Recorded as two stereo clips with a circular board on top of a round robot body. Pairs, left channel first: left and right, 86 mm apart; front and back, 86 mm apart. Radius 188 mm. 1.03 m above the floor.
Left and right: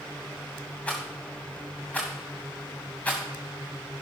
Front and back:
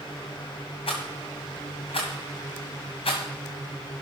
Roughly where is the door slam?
No door slam in this recording.